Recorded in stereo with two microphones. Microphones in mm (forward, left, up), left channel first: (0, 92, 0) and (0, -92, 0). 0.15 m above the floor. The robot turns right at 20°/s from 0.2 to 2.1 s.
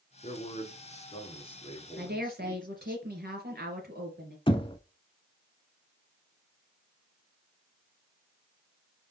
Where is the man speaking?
110° left, 2 m; by 3.0 s 145° left, 2 m.